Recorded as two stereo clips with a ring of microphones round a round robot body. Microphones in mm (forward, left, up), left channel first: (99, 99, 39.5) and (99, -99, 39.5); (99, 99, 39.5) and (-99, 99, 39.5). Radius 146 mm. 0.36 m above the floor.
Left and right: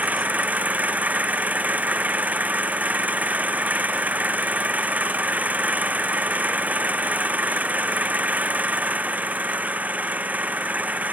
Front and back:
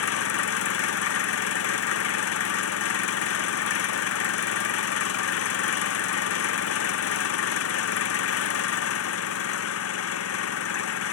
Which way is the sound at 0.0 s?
5° right.